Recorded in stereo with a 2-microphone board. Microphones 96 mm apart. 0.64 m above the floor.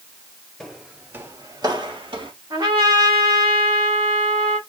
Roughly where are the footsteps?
Centre.